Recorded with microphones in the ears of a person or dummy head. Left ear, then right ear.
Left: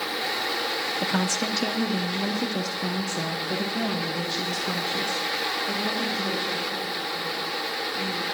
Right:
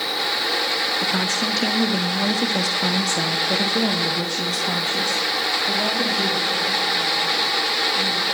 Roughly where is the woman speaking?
Left.